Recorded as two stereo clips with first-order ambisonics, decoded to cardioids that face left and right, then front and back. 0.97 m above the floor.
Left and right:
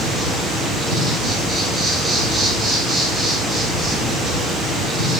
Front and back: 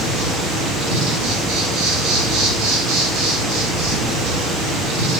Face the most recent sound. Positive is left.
turn(degrees=-175)